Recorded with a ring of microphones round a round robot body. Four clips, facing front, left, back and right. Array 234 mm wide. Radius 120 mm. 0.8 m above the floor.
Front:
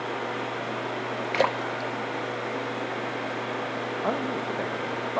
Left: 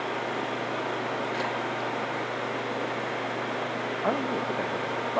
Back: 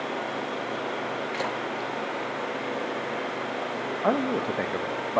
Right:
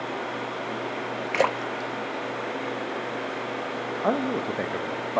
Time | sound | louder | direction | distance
1.3 | a splash | right 4 dB, front 4 dB | 55° right | 0.7 m
4.0 | a man speaking | right 3 dB, back 5 dB | 145° right | 0.9 m